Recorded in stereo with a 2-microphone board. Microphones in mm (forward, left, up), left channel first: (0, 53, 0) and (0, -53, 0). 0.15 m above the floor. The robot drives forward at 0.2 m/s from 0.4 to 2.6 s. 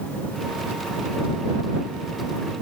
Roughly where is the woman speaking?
I don't hear a woman speaking.